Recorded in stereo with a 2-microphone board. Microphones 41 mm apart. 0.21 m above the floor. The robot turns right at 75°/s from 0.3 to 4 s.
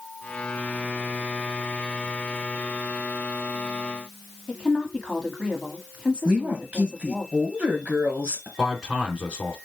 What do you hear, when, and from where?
4.5 s a woman speaking: 20° left (ahead or behind), 1.4 m
6.2 s a woman speaking: 35° right (ahead or behind), 3 m
8.6 s a man speaking: 25° right (ahead or behind), 2.5 m